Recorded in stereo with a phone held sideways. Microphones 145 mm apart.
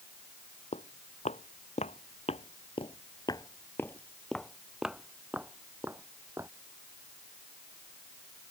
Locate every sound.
0.7 s footsteps: 50° left (ahead or behind); by 6.5 s 20° right (ahead or behind)